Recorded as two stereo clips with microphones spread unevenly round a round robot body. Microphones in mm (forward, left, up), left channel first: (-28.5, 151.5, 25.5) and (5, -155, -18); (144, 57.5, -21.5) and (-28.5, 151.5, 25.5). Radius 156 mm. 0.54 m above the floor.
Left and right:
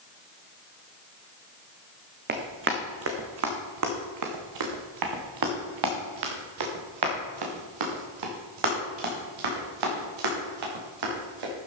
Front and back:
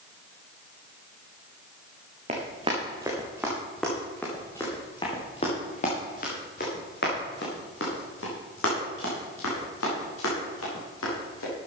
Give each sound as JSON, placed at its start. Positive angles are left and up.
{"t": 2.3, "sound": "running footsteps", "azimuth_deg": -145, "distance_m": 2.5}